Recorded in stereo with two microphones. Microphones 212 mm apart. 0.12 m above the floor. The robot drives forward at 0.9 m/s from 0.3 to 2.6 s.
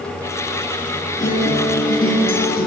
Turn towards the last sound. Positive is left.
turn(degrees=50)  # may be behind; listen again after turning